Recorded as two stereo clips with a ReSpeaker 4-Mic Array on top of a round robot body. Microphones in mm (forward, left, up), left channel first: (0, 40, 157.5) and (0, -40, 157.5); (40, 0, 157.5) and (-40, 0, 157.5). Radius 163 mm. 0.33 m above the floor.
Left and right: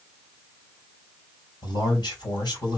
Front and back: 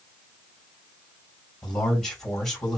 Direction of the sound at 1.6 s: 85° left.